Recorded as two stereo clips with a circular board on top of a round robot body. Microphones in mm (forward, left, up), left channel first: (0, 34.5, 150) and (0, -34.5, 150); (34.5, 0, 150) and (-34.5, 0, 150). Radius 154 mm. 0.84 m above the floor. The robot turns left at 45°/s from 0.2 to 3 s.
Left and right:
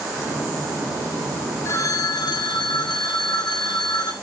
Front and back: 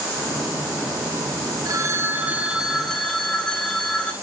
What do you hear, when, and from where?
1.6 s a phone ringing: 140° left, 1.7 m; by 4.1 s 80° left, 1.7 m